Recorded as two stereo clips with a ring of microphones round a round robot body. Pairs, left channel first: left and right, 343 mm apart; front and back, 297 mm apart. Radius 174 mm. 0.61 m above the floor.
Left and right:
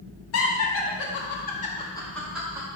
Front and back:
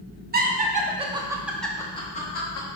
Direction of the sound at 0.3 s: 130° left.